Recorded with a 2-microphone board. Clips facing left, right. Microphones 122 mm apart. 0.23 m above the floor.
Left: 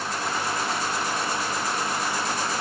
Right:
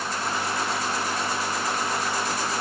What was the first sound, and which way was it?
Only background noise.